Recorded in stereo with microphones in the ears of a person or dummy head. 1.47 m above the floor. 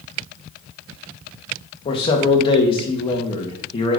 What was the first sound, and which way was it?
A man speaking, 25° left (ahead or behind).